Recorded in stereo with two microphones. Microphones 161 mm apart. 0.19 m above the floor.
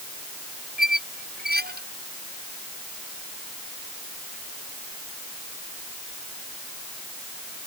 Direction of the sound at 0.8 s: 75° right (ahead or behind).